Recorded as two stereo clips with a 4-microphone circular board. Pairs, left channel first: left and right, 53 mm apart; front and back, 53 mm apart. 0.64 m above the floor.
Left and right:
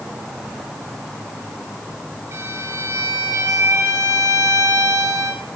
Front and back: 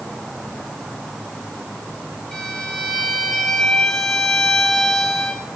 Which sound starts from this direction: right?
A violin, at 2.3 s.